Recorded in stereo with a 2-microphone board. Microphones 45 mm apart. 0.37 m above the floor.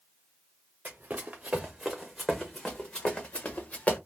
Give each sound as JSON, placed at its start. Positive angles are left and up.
{"t": 0.8, "sound": "running footsteps", "side_deg": -40, "distance_m": 1.3}